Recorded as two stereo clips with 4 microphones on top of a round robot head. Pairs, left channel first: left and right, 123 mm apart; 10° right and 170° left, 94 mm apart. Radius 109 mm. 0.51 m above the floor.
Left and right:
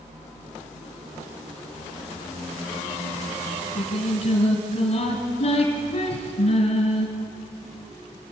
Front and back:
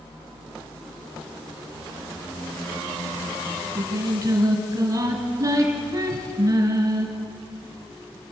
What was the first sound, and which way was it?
Singing, 120° left.